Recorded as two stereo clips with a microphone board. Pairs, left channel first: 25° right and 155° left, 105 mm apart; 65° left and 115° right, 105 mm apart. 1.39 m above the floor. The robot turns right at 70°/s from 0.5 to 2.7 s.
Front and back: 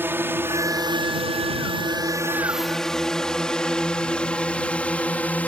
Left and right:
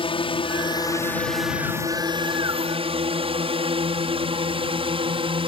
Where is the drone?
90° left; by 5.5 s 95° right.